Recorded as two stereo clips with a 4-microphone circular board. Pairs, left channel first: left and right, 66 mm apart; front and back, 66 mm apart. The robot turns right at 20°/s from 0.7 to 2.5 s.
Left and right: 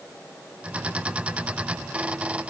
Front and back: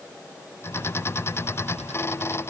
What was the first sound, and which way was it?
Only background noise.